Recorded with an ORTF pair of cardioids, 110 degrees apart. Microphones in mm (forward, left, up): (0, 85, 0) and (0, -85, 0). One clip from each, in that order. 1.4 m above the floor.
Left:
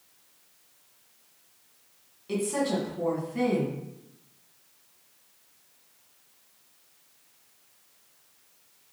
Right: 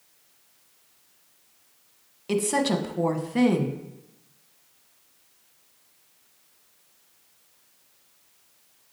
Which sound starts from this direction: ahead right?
A woman speaking, at 2.3 s.